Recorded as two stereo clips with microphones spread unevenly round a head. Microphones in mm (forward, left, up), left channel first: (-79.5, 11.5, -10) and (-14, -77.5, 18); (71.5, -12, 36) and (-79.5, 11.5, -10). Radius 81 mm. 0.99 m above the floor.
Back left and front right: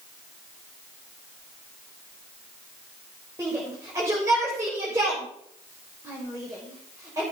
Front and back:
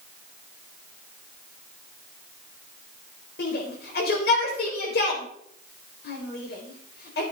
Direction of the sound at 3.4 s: 20° left.